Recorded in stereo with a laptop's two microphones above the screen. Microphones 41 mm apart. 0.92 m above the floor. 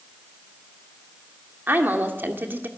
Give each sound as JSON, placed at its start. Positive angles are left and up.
{"t": 1.7, "sound": "a woman speaking", "side_deg": -55, "distance_m": 2.0}